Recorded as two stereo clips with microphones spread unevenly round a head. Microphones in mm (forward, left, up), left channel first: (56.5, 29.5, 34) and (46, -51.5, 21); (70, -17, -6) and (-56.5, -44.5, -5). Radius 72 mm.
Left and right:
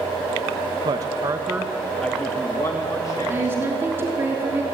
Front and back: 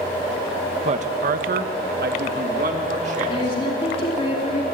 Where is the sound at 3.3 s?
35° right, 3 m.